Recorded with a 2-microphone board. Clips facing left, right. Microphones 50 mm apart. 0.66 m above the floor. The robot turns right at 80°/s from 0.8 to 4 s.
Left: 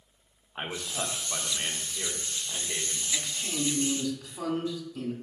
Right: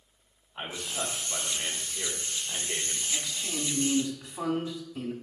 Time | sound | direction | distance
0.6 | a man speaking | 80° left | 1.4 m
3.1 | a man speaking | 150° left | 1.7 m